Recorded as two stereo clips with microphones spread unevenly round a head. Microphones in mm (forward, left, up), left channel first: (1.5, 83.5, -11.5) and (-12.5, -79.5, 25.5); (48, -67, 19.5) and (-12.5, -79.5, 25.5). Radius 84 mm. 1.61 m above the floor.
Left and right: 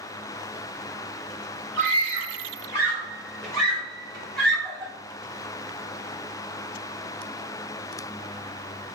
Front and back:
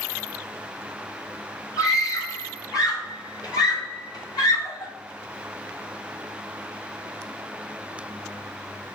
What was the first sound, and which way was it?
A scream, straight ahead.